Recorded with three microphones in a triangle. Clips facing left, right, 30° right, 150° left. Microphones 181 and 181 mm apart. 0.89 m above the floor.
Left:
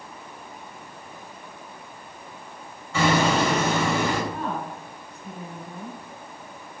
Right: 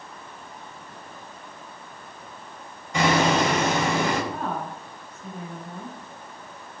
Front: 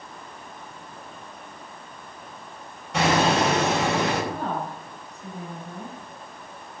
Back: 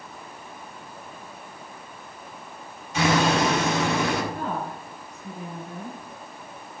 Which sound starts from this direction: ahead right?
A woman speaking, at 4.3 s.